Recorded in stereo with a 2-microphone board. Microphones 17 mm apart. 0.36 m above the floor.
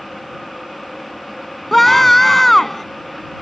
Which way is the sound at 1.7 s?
15° left (ahead or behind).